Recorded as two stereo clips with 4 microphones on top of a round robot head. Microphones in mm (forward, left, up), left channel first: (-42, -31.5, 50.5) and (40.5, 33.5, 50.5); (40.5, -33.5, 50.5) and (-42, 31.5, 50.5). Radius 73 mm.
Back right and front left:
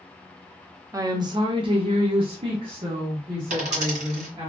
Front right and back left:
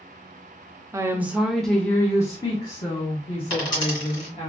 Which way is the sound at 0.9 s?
85° left.